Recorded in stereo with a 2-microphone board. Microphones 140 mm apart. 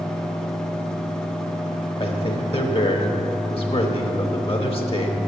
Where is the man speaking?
40° left (ahead or behind), 1.2 m.